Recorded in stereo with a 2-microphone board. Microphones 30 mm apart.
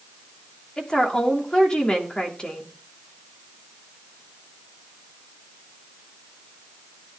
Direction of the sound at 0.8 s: 25° left (ahead or behind).